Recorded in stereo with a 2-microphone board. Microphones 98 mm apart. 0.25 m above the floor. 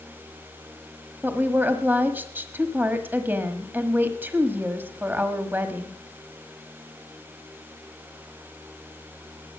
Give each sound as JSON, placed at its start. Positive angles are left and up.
{"t": 1.2, "sound": "a woman speaking", "side_deg": -20, "distance_m": 1.2}